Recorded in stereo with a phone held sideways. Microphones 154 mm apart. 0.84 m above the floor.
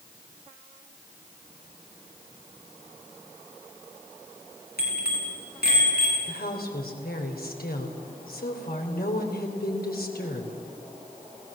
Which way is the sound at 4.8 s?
85° left.